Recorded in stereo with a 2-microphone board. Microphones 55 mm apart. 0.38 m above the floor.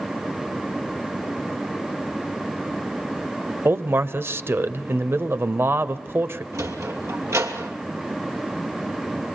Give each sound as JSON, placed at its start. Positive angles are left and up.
{"t": 3.6, "sound": "a man speaking", "side_deg": -45, "distance_m": 1.1}
{"t": 6.5, "sound": "a sliding door", "side_deg": -60, "distance_m": 2.5}